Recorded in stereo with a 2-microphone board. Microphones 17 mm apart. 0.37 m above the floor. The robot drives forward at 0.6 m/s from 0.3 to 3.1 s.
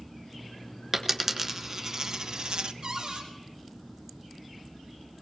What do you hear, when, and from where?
0.9 s a dropped coin: 20° right (ahead or behind), 1.3 m; by 2.7 s 70° right (ahead or behind), 0.5 m
2.8 s a cupboard door: 85° right, 3.5 m